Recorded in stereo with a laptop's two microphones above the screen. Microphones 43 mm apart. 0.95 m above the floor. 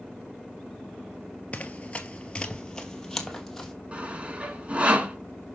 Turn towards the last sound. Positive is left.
turn(degrees=-30)  # may be behind; listen again after turning